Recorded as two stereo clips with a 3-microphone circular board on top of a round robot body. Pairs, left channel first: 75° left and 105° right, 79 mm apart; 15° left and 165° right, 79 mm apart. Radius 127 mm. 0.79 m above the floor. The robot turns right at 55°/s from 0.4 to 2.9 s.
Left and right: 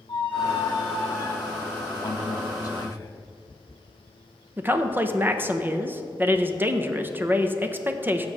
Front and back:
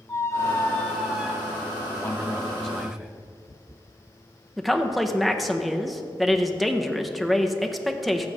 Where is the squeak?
70° left, 0.8 m; by 1.9 s 150° left, 0.8 m.